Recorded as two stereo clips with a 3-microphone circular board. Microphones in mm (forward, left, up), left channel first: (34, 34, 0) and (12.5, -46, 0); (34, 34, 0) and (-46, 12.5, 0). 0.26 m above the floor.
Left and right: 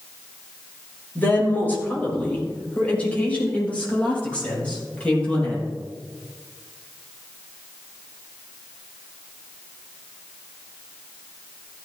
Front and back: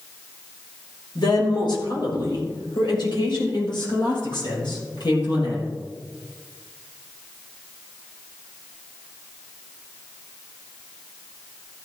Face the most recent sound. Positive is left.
turn(degrees=0)